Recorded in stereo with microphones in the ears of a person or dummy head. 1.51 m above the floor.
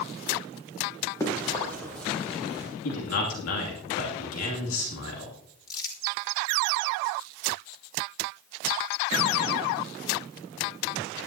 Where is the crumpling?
25° left (ahead or behind), 3 m.